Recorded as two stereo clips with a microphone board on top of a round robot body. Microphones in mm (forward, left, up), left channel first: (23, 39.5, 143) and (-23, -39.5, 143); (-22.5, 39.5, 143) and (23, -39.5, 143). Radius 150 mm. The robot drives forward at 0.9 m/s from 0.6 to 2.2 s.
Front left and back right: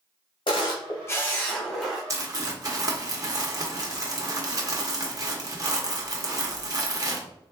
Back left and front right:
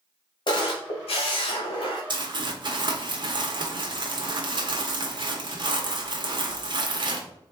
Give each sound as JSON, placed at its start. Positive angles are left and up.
{"t": 0.5, "sound": "a camera shutter", "azimuth_deg": 85, "distance_m": 0.7}
{"t": 2.1, "sound": "crumpling", "azimuth_deg": -75, "distance_m": 1.3}